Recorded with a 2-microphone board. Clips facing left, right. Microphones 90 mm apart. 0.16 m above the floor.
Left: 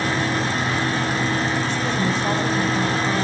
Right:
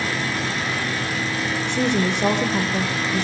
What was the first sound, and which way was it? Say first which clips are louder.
A woman speaking: right 1 dB; 70° right (ahead or behind).